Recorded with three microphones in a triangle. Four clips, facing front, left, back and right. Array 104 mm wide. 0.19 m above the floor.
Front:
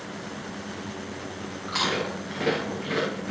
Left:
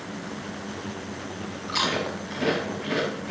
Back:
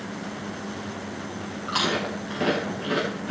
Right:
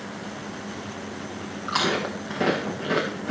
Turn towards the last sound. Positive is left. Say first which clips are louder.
# right 2 dB, back 2 dB
turn(degrees=-100)